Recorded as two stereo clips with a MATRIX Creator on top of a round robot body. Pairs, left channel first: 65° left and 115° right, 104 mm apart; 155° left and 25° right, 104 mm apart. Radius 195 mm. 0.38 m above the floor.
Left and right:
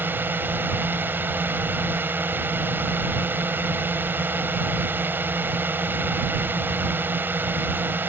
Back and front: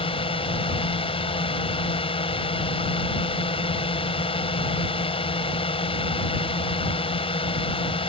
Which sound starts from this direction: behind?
A drone, at 0.0 s.